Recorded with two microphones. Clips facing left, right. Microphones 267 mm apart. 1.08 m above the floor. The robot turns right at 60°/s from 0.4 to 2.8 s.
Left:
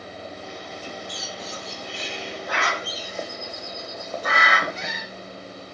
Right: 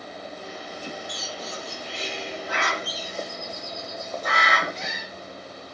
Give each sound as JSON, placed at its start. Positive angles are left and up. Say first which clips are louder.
{"t": 1.1, "sound": "a bird", "louder": "even", "side_deg": 10, "distance_m": 2.0}